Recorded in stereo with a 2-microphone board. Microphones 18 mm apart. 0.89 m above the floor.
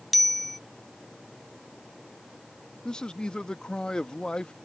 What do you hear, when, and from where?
0.1 s a bicycle bell: 5° left (ahead or behind)
2.9 s a man speaking: 50° left (ahead or behind)